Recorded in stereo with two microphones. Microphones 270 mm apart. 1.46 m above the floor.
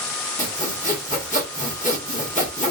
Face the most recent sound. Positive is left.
turn(degrees=25)  # may be behind; listen again after turning